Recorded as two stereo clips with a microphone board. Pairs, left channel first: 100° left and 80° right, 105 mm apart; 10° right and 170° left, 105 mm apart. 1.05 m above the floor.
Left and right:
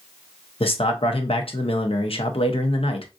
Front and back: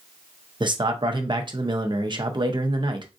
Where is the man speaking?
125° left, 0.7 m.